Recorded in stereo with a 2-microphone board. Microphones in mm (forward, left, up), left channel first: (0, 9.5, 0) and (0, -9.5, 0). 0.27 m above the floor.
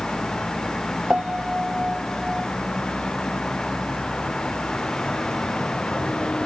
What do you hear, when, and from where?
0.0 s a vehicle: 65° left (ahead or behind)
1.1 s a piano: 65° right (ahead or behind)